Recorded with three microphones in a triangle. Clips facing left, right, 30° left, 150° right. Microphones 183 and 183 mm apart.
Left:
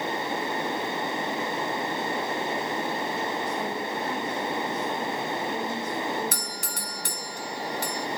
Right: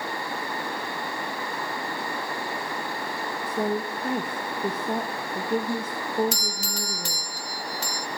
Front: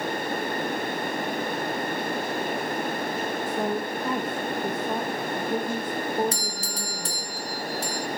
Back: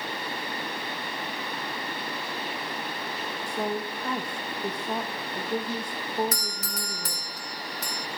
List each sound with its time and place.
3.5 s a woman speaking: 55° right, 1.6 m
6.3 s a doorbell: 85° left, 1.3 m